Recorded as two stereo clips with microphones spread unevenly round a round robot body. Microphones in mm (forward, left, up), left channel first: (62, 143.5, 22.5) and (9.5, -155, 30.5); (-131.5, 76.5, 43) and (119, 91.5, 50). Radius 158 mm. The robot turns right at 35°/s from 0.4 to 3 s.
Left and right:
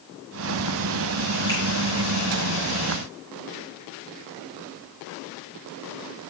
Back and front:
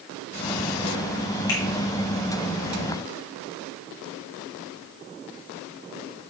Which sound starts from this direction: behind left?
A finger snap, at 1.5 s.